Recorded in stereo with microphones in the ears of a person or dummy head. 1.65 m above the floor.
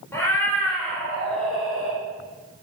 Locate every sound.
0.1 s a cat meowing: 15° left (ahead or behind), 2 m; by 2.0 s 5° right (ahead or behind), 3 m